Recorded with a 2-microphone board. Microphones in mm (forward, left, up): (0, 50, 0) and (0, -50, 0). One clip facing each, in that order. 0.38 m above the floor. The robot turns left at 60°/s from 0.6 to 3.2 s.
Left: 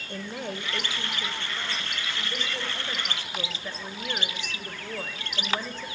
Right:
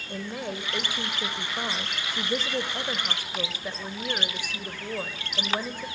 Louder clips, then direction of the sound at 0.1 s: Right 1 dB; 5° right.